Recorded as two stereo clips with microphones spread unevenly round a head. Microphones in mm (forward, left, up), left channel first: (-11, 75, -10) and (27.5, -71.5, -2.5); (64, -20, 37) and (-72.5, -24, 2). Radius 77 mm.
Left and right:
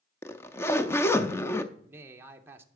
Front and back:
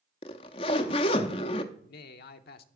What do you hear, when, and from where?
0.2 s a zipper: 30° left, 0.5 m
1.7 s a man speaking: straight ahead, 0.6 m